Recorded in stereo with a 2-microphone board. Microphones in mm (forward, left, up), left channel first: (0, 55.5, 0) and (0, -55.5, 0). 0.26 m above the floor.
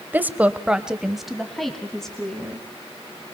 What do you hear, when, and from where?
0.1 s a woman speaking: 15° right (ahead or behind), 1.0 m; by 2.7 s 5° left (ahead or behind), 3 m